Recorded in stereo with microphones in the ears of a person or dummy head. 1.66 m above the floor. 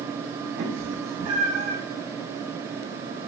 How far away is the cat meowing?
About 3 m.